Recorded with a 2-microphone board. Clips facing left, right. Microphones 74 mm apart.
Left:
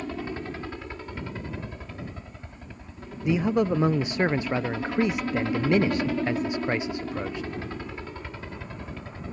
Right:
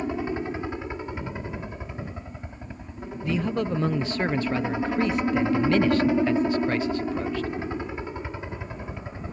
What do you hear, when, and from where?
0.0 s a helicopter: 20° right (ahead or behind)
3.2 s a man speaking: 15° left (ahead or behind)